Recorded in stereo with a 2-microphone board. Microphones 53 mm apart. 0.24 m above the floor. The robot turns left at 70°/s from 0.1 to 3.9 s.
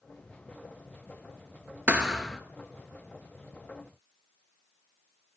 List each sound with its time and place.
1.9 s a thud: 155° right, 1.7 m; by 2.4 s 170° left, 1.7 m